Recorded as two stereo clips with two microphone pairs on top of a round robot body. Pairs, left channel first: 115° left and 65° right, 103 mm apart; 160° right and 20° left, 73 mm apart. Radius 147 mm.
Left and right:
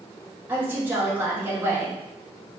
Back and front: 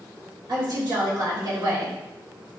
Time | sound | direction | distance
0.5 | a woman speaking | 5° left | 1.7 m